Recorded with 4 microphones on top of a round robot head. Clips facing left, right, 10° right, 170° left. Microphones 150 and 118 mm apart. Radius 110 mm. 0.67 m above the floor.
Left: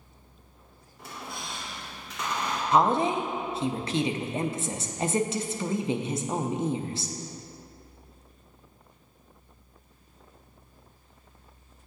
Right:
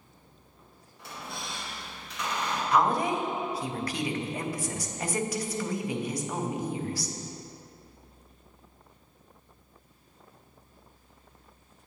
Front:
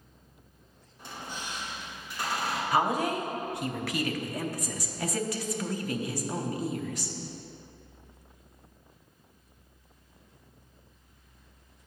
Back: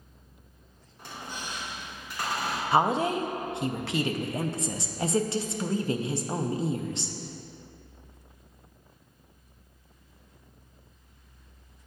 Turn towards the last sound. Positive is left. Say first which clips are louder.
# left 3 dB, back 3 dB
turn(degrees=130)